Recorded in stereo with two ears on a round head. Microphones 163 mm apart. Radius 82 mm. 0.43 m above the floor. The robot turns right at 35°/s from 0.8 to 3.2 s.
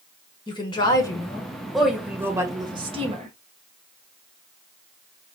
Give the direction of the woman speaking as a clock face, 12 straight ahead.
7 o'clock.